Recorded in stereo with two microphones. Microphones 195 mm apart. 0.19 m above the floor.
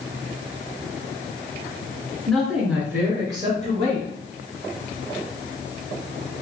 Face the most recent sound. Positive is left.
turn(degrees=-35)  # may be behind; listen again after turning